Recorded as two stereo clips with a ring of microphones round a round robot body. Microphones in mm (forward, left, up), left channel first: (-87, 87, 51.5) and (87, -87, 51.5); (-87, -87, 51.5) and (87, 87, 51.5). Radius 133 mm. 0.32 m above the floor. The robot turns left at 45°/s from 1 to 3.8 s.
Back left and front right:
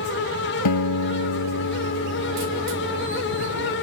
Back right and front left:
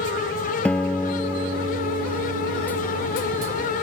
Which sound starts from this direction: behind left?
A guitar, at 0.7 s.